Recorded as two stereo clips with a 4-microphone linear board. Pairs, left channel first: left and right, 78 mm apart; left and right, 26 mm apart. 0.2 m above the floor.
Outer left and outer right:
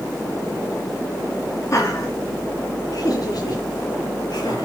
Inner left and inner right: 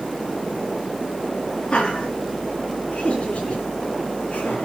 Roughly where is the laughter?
Left.